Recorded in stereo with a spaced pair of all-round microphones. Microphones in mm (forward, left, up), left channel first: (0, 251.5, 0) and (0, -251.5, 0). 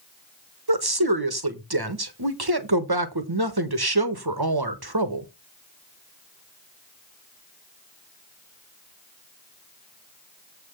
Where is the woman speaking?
45° right (ahead or behind), 1.3 m.